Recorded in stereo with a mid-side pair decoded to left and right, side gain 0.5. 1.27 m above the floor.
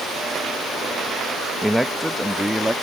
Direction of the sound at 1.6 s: 5° right.